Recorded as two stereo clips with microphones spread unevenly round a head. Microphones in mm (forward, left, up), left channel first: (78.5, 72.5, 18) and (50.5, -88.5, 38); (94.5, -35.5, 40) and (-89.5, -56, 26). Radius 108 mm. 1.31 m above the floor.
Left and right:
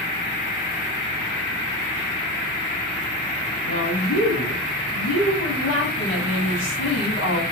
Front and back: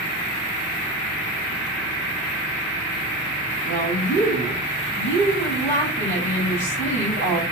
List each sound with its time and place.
3.6 s a woman speaking: 125° left, 3 m